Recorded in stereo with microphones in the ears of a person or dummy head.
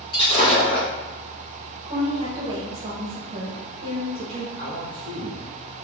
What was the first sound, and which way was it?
Breaking glass, 30° left (ahead or behind).